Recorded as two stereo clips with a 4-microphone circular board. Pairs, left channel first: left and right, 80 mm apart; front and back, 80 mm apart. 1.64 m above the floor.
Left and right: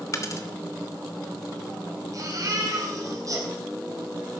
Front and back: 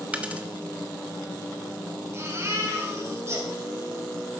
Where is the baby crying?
130° right, 3 m.